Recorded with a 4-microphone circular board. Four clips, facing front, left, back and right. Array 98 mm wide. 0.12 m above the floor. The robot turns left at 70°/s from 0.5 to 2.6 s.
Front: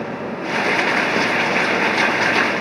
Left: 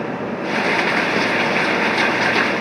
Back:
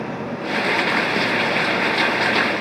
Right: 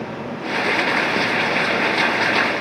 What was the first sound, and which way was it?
Only background noise.